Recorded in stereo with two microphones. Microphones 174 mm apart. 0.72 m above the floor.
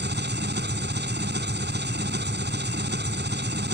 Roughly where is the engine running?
Right.